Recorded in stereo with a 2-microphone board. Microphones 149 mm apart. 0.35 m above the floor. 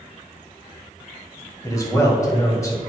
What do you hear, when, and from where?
1.6 s a man speaking: 20° left (ahead or behind), 2 m